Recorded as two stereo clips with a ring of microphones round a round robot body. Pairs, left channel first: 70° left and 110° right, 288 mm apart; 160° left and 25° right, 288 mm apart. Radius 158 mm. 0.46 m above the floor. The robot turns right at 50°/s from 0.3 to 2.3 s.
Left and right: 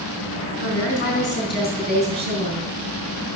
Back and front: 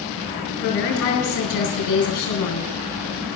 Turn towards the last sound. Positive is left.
turn(degrees=180)